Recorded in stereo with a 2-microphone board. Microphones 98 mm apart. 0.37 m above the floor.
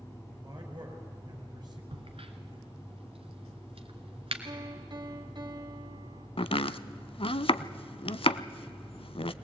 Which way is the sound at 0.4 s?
40° right (ahead or behind).